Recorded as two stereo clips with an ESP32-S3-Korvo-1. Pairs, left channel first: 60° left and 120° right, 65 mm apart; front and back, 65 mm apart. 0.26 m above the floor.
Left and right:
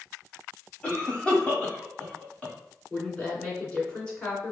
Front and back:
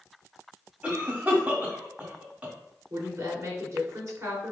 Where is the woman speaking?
135° left, 2.5 m.